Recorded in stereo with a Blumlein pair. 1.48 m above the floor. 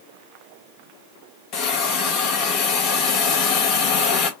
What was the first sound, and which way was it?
A hiss, 40° left.